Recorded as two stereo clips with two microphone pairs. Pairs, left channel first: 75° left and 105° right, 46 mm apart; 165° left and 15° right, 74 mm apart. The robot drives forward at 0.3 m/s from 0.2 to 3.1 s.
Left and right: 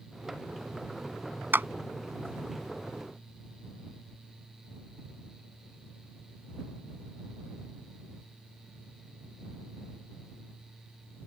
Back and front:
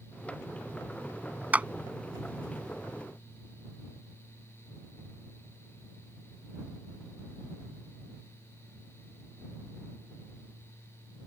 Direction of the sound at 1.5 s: 80° right.